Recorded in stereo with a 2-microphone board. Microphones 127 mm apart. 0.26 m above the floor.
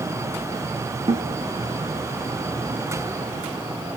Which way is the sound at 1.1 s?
45° right (ahead or behind).